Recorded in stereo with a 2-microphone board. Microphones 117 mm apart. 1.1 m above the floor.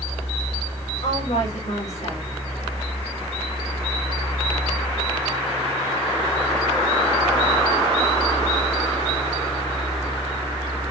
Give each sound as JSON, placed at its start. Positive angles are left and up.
{"t": 1.0, "sound": "a woman speaking", "side_deg": 80, "distance_m": 4.0}